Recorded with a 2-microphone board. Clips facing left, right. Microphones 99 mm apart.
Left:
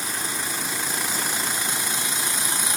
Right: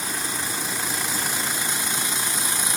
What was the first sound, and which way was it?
Only background noise.